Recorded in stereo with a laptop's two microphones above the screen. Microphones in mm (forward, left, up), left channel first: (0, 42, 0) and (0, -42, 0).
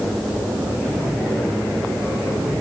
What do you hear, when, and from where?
Only background noise.